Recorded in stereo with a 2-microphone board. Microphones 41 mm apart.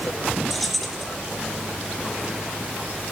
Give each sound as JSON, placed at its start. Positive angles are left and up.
{"t": 0.5, "sound": "keys jangling", "side_deg": 0, "distance_m": 2.5}